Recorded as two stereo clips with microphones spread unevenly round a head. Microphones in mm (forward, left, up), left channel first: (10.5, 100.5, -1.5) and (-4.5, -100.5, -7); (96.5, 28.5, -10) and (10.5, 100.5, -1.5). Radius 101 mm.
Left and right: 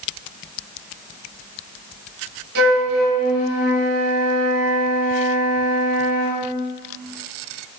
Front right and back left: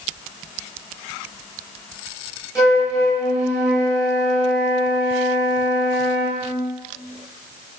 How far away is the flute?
About 4 m.